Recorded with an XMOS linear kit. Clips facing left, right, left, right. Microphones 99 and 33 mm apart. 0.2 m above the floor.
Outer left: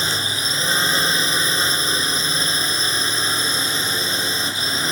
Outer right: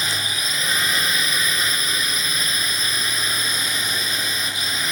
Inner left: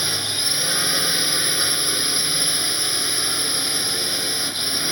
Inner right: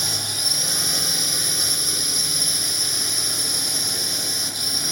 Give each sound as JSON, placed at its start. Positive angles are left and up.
{"t": 0.0, "sound": "a drone", "side_deg": 30}